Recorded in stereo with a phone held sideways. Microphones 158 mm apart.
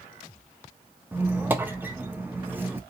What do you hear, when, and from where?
1.1 s a squeak: 10° right (ahead or behind), 0.5 m